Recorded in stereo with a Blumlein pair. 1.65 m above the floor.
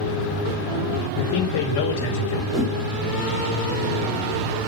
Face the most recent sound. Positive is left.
turn(degrees=0)